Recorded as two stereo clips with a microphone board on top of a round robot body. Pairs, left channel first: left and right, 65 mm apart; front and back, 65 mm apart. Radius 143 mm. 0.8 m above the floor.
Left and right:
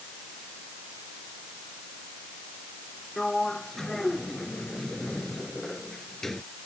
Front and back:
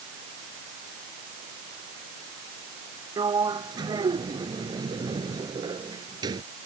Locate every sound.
3.2 s a sliding door: 175° left